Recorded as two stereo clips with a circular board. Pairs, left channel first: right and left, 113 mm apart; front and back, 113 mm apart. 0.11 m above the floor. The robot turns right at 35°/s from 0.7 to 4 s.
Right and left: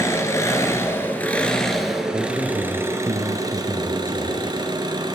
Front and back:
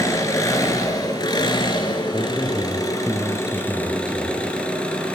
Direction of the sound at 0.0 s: 40° right.